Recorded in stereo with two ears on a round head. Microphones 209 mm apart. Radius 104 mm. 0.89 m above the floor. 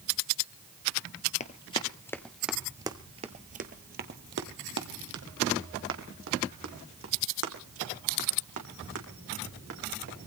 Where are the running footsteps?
30° left (ahead or behind), 1.0 m; by 10.3 s 70° right (ahead or behind), 4.5 m.